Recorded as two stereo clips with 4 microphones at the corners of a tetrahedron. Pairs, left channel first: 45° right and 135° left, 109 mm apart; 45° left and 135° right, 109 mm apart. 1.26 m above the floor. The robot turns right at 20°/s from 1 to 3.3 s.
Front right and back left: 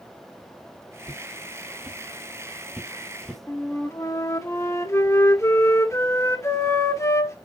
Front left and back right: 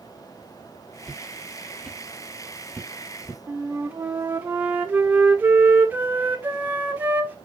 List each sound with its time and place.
1.0 s footsteps: 130° left, 1.4 m; by 3.4 s 40° left, 1.4 m
3.5 s a flute: 80° right, 0.9 m